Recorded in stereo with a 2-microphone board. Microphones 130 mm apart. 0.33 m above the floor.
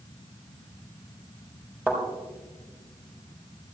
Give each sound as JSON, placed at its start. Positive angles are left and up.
{"t": 1.9, "sound": "a thud", "side_deg": -10, "distance_m": 4.0}